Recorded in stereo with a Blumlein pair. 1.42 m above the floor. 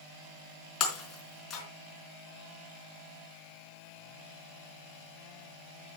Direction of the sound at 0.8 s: 30° left.